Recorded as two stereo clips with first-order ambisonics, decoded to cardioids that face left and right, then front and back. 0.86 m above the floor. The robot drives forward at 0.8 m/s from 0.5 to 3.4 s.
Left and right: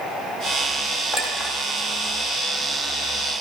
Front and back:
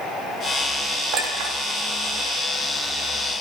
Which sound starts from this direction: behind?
A clink, at 1.1 s.